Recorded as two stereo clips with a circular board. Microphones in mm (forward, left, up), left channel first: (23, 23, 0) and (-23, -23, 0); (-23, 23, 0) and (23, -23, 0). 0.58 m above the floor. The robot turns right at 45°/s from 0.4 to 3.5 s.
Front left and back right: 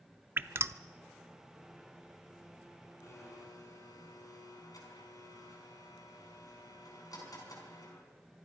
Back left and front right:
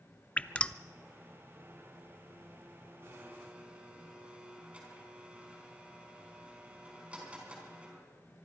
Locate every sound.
0.4 s dripping: 175° right, 0.5 m; by 0.7 s 160° right, 0.5 m
3.0 s a blender: straight ahead, 4.5 m; by 8.1 s 25° left, 4.5 m